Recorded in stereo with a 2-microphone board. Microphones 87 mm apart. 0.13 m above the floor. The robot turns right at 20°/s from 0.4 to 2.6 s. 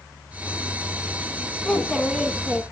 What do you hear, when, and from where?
1.6 s a child speaking: 5° left (ahead or behind), 0.7 m; by 2.6 s 10° left (ahead or behind), 0.7 m